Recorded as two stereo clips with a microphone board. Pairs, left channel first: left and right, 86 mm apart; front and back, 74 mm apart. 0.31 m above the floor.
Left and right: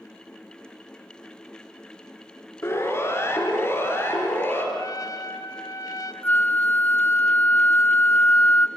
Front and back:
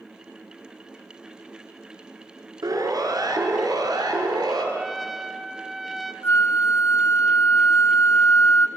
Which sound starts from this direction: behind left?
A siren, at 2.6 s.